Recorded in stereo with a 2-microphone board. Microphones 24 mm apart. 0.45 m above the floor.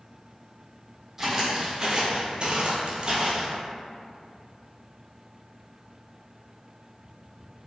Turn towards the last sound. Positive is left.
turn(degrees=-35)  # may be behind; listen again after turning